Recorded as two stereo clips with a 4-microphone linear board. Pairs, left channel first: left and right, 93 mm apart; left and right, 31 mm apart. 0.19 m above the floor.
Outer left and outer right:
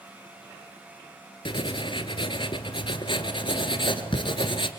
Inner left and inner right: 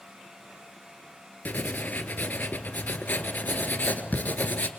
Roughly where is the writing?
Left.